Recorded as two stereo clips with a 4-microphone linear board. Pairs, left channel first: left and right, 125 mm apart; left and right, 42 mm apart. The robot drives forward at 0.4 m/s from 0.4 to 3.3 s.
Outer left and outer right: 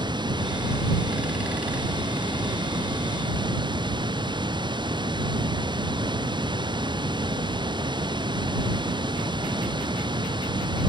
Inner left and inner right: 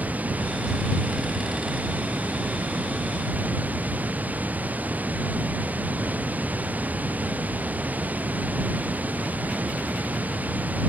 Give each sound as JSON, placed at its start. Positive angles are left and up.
{"t": 0.0, "sound": "running water", "side_deg": -40}